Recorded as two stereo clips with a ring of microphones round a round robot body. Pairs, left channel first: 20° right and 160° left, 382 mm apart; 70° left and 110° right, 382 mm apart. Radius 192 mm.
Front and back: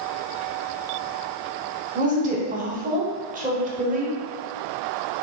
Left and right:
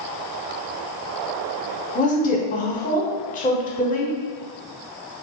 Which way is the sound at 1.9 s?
110° left.